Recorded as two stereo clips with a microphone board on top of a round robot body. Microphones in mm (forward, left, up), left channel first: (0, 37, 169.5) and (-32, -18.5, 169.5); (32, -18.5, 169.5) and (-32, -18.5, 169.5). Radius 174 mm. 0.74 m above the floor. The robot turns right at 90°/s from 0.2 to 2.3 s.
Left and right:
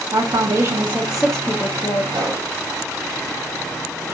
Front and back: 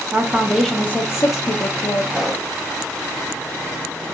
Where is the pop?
100° right, 0.5 m; by 2.5 s 85° right, 0.5 m.